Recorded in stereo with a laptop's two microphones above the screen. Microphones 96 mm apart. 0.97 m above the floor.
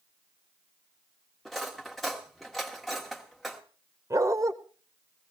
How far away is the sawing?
No sawing in this recording.